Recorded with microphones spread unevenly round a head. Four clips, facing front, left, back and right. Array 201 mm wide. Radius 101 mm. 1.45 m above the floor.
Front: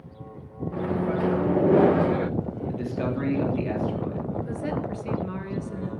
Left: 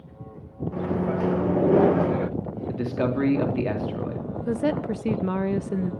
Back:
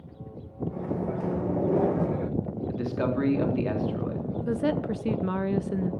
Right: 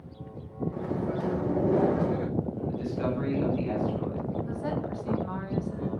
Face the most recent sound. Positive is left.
turn(degrees=110)